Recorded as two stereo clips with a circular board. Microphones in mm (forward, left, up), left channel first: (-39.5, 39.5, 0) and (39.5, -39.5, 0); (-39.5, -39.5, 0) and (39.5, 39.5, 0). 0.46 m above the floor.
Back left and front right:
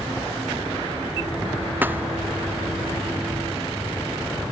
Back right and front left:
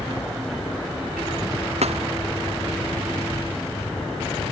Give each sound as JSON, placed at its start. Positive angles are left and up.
{"t": 1.8, "sound": "a thud", "azimuth_deg": 30}